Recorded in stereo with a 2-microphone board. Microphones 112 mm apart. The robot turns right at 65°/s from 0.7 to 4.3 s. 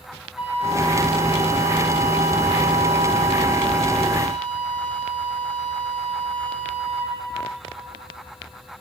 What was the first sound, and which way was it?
A flute, 5° right (ahead or behind).